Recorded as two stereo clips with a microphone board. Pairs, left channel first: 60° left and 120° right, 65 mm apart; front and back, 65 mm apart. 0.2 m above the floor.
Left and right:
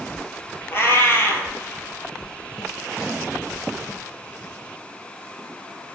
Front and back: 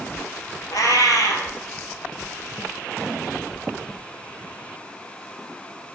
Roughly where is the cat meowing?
Ahead.